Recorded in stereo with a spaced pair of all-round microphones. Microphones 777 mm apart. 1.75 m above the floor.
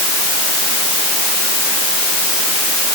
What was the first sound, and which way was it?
Only background noise.